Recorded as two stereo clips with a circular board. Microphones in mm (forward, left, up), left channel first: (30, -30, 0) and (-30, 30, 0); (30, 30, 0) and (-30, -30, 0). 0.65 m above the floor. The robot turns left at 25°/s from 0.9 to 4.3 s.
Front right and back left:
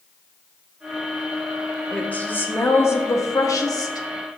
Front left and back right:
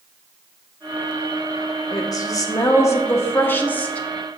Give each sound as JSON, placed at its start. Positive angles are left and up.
{"t": 1.9, "sound": "a woman speaking", "azimuth_deg": 25, "distance_m": 1.0}